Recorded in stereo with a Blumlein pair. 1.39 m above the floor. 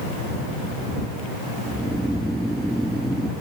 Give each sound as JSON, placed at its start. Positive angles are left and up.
{"t": 1.7, "sound": "snoring", "azimuth_deg": -5}